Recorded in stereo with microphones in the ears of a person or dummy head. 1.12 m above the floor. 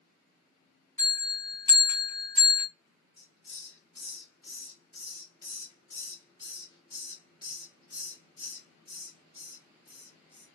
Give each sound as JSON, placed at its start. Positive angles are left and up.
{"t": 1.0, "sound": "a bell", "side_deg": 20, "distance_m": 0.9}
{"t": 3.2, "sound": "a hiss", "side_deg": 30, "distance_m": 1.2}